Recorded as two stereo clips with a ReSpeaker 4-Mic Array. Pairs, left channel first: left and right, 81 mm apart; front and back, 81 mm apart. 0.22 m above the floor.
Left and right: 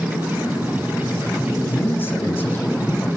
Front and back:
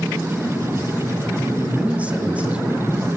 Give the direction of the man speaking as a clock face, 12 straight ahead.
8 o'clock.